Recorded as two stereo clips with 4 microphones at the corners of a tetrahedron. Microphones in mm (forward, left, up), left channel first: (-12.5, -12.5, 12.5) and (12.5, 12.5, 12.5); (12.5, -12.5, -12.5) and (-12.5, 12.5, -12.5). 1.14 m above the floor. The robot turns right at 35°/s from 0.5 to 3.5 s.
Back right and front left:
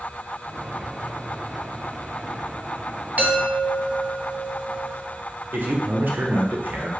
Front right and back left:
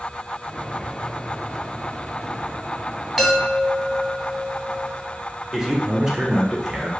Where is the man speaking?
60° left, 0.7 m.